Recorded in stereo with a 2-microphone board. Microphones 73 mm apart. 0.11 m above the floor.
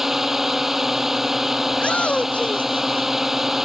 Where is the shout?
15° left (ahead or behind).